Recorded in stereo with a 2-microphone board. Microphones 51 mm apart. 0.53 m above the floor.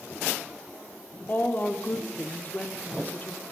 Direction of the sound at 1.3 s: 35° left (ahead or behind).